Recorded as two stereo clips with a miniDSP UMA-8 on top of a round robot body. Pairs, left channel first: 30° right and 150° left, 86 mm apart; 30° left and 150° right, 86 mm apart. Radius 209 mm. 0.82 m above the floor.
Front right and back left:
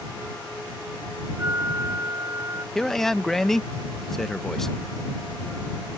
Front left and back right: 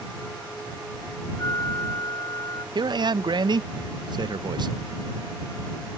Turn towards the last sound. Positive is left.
turn(degrees=-115)